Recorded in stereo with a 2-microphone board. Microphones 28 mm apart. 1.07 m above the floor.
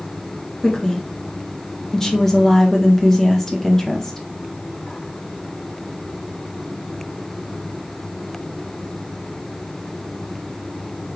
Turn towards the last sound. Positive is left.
turn(degrees=15)  # may be behind; listen again after turning